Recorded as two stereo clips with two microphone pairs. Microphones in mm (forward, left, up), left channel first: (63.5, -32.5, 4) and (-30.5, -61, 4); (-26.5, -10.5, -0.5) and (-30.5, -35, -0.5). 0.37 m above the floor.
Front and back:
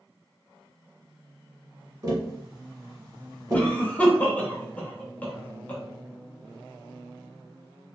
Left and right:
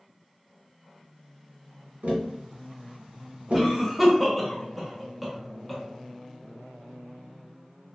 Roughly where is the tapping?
Right.